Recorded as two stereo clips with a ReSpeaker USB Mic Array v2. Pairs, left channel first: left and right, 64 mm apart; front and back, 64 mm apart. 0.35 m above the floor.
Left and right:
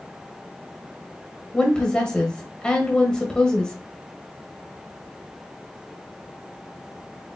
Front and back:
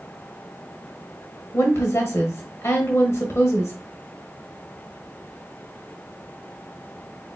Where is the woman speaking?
20° left, 1.2 m.